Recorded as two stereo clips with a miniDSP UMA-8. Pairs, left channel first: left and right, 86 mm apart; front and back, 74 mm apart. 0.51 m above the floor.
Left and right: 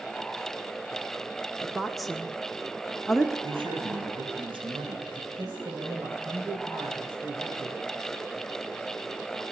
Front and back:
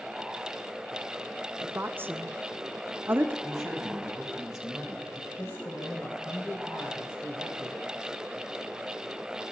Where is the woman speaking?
Straight behind, 0.7 m.